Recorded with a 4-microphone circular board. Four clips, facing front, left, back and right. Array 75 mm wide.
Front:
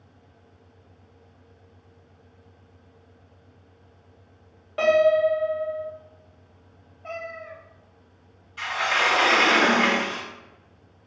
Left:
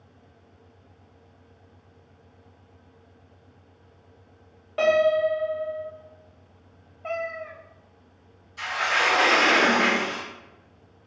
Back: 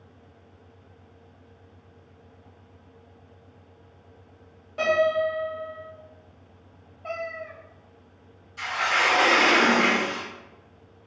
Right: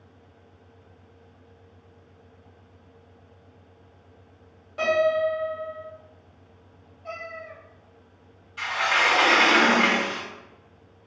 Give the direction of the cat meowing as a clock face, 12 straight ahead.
9 o'clock.